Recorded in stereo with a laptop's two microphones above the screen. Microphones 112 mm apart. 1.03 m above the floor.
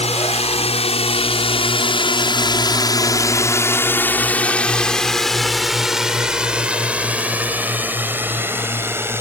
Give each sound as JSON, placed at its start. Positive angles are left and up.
{"t": 0.0, "sound": "a drone", "side_deg": 70}